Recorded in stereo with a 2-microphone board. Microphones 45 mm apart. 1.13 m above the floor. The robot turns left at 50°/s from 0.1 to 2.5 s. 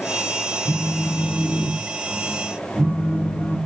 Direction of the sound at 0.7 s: 80° right.